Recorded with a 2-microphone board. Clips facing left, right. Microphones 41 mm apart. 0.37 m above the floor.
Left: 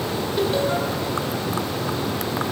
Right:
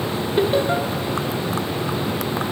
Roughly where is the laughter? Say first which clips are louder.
Right 3 dB; right.